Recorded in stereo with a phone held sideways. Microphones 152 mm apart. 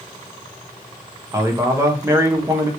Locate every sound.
1.3 s a man speaking: 20° right (ahead or behind), 0.6 m